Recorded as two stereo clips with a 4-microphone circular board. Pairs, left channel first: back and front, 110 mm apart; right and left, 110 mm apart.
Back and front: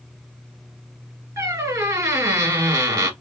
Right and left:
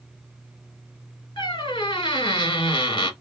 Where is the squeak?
55° right, 1.3 m.